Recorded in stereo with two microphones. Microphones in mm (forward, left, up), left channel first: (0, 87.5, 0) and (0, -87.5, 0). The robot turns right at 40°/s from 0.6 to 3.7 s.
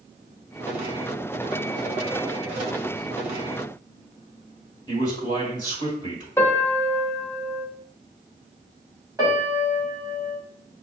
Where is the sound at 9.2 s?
20° right (ahead or behind), 1.4 m.